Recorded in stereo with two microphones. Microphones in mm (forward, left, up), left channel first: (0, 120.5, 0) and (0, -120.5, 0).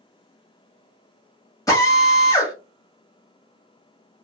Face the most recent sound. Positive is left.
turn(degrees=15)  # may be behind; listen again after turning